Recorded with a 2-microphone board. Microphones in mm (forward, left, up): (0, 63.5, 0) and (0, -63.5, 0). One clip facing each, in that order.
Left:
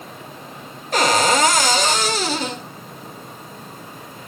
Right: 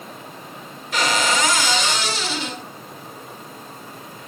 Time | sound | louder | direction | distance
0.9 | a cupboard door | left 4 dB | 45° left (ahead or behind) | 2 m